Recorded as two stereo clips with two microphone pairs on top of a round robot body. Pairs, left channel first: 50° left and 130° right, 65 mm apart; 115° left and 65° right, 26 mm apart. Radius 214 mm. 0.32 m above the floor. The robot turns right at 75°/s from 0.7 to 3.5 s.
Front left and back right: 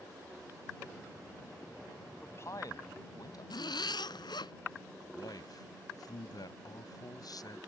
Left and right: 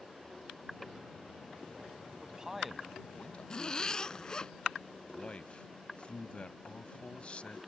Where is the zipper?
50° left.